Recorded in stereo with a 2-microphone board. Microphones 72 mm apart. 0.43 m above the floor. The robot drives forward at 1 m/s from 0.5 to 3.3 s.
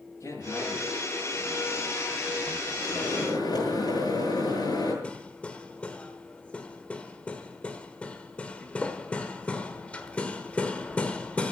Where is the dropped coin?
I don't hear a dropped coin.